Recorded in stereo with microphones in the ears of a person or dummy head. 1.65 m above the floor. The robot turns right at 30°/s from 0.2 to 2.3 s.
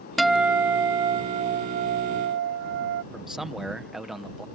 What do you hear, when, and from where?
0.2 s a guitar: straight behind; by 3.0 s 115° right
3.1 s a man speaking: 5° right (ahead or behind)